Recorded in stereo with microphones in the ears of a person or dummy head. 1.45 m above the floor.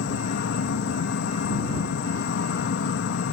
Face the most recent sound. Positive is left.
turn(degrees=75)  # may be behind; listen again after turning